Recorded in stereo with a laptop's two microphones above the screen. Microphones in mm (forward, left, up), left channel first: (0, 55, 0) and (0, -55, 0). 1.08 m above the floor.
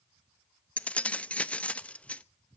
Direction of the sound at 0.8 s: 10° left (ahead or behind).